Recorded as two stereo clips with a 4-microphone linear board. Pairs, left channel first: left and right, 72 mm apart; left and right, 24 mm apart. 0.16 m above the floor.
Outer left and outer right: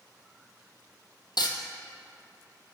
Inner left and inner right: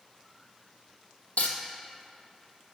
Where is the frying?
85° left, 0.8 m.